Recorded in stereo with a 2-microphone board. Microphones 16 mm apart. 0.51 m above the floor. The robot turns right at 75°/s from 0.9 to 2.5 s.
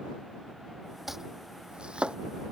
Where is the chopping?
15° right (ahead or behind); by 2.2 s 80° right.